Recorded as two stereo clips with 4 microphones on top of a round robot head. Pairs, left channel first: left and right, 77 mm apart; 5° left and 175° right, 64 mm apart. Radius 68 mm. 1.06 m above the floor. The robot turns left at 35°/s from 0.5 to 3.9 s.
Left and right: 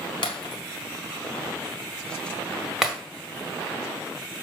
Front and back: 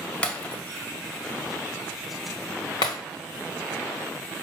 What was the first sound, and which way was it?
Breaking glass, 75° left.